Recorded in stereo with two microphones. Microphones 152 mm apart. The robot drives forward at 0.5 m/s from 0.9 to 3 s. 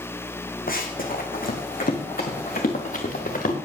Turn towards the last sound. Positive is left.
turn(degrees=70)  # may be behind; listen again after turning